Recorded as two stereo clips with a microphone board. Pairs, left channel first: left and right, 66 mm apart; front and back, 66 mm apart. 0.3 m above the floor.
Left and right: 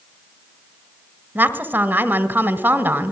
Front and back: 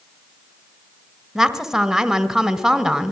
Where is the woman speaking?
100° right, 1.4 m.